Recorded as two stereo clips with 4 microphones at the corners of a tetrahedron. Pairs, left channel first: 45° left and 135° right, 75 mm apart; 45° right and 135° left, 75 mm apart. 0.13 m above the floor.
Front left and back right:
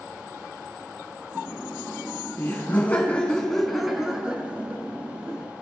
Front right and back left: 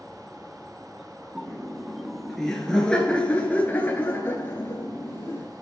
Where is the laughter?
55° left, 1.7 m; by 5.5 s 85° right, 1.8 m.